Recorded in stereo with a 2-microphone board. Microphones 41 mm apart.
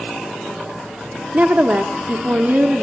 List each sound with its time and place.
1.3 s a woman speaking: 40° right (ahead or behind), 1.2 m